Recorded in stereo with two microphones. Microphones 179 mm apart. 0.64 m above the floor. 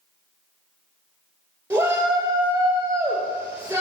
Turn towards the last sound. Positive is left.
turn(degrees=-10)  # may be behind; listen again after turning